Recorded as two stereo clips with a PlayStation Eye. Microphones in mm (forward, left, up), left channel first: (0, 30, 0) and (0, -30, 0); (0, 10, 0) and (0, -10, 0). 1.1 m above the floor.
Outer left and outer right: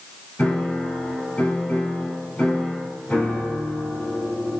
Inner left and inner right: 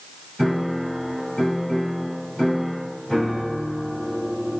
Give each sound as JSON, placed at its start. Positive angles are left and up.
{"t": 0.4, "sound": "a piano", "side_deg": 20, "distance_m": 5.0}